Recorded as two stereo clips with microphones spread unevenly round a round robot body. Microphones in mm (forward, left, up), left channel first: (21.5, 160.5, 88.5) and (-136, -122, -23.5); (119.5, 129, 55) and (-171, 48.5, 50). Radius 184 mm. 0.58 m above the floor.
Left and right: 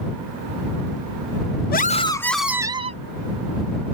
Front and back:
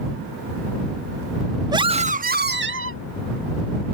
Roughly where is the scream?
Behind left.